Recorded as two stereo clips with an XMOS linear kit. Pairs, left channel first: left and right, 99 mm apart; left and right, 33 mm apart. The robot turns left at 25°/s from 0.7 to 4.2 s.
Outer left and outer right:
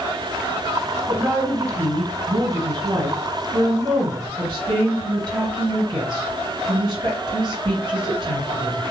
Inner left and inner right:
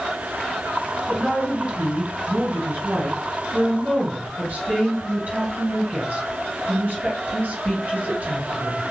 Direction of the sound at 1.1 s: 30° right.